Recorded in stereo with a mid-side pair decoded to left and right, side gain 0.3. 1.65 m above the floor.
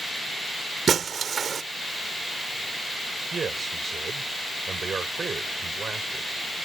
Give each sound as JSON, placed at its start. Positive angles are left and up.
{"t": 0.9, "sound": "breaking glass", "azimuth_deg": -70}
{"t": 3.3, "sound": "a man speaking", "azimuth_deg": -60}